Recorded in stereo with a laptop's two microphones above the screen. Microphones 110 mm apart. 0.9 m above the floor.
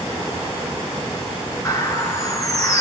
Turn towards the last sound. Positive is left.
turn(degrees=30)  # may be behind; listen again after turning